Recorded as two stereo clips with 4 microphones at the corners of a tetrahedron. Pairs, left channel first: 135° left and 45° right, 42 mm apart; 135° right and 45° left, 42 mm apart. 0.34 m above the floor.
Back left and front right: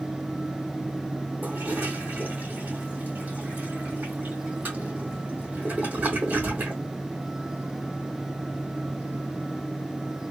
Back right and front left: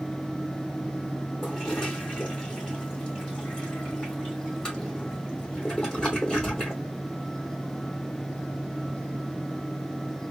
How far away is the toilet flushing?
About 2 m.